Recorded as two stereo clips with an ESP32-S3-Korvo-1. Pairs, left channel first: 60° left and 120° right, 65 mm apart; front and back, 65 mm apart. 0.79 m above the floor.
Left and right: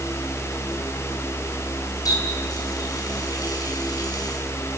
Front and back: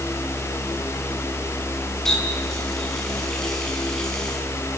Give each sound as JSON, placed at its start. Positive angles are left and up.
{"t": 2.0, "sound": "a running tap", "azimuth_deg": 85, "distance_m": 5.5}